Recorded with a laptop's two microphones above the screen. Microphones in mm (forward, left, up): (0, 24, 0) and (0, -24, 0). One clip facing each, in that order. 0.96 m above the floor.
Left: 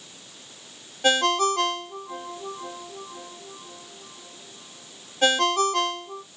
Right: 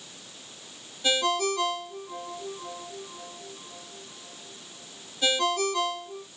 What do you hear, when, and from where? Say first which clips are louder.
1.0 s a ringtone: left 5 dB; 55° left (ahead or behind), 0.9 m